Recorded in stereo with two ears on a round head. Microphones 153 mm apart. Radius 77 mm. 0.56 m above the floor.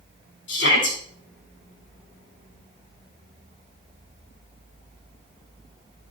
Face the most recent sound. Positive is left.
turn(degrees=80)